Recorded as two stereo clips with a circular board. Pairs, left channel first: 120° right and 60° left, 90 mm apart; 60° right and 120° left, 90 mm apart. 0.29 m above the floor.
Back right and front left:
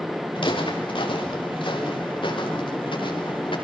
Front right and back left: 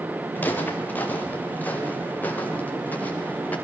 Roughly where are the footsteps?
Behind right.